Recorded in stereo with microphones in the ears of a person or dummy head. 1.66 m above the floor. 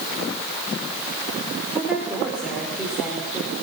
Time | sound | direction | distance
1.7 | a woman speaking | 10° right (ahead or behind) | 4 m